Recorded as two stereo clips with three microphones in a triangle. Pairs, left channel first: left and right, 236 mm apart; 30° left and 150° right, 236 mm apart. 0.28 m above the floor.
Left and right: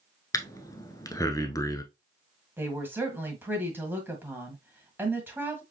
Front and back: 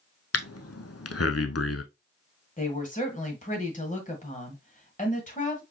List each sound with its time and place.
0.3 s breathing: 15° left, 0.6 m
2.6 s a woman speaking: 15° right, 1.6 m